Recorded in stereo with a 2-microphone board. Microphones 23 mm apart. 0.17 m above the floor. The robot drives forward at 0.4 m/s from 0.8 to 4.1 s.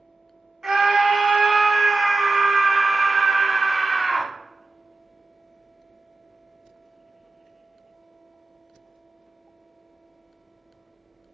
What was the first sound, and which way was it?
A scream, 25° right (ahead or behind).